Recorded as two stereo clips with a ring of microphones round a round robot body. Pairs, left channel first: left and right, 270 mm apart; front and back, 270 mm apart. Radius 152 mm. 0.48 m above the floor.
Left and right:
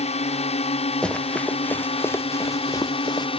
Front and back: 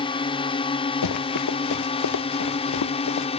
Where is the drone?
50° left; by 3.4 s 45° left.